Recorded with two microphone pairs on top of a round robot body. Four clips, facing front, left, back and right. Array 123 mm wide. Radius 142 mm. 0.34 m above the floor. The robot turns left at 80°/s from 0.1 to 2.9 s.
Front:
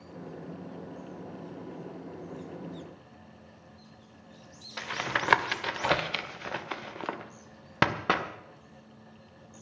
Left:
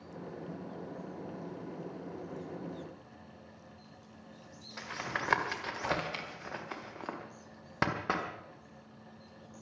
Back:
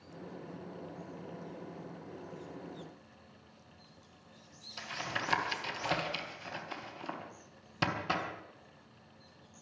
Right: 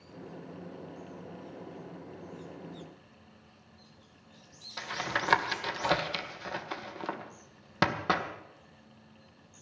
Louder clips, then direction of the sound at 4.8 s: Right 4 dB, front 7 dB; 10° right.